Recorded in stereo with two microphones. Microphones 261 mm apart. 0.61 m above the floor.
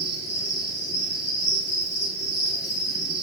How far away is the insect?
About 4 m.